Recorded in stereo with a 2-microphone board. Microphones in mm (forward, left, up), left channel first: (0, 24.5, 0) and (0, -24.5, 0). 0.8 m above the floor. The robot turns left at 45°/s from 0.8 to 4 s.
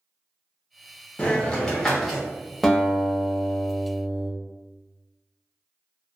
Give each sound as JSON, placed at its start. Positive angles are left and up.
{"t": 1.2, "sound": "a hiss", "azimuth_deg": 40, "distance_m": 0.7}
{"t": 2.6, "sound": "a guitar", "side_deg": 0, "distance_m": 0.6}